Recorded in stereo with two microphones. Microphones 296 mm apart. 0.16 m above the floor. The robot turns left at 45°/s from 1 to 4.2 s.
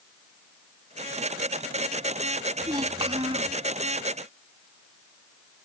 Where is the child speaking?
15° right (ahead or behind); by 3.5 s 20° right (ahead or behind).